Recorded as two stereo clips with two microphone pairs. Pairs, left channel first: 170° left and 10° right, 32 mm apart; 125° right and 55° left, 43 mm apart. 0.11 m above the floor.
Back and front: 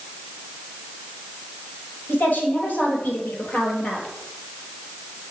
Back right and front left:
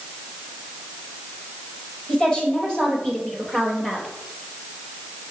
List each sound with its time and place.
2.1 s a woman speaking: 170° left, 3.5 m; by 4.1 s 165° left, 2.5 m